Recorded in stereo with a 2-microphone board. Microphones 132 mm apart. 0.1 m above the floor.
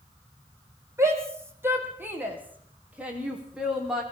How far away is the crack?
No crack in this recording.